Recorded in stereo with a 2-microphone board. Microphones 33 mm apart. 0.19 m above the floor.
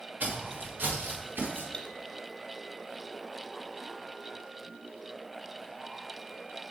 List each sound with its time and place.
0.2 s footsteps: 55° right (ahead or behind), 1.9 m; by 1.6 s 85° right, 2.5 m
1.7 s cutlery clinking: 20° left (ahead or behind), 1.0 m